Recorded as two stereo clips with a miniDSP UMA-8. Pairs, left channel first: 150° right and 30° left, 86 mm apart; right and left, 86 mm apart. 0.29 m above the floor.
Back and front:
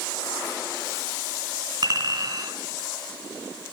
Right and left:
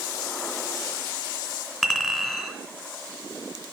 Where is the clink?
Straight ahead, 2.5 m.